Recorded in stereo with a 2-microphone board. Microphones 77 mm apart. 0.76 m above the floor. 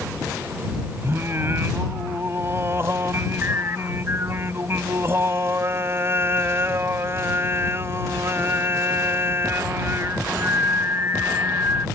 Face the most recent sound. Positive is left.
turn(degrees=-35)  # may be behind; listen again after turning